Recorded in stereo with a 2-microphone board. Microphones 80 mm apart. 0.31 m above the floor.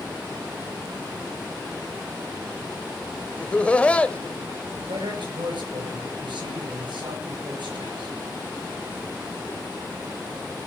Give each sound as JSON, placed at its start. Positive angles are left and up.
{"t": 3.4, "sound": "laughter", "side_deg": 15, "distance_m": 1.0}
{"t": 4.9, "sound": "a man speaking", "side_deg": -75, "distance_m": 6.5}